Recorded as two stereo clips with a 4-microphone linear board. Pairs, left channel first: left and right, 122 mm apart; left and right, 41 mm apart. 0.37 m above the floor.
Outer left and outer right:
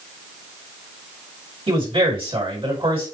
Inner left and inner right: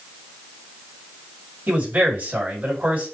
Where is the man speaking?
50° right (ahead or behind), 2.5 m.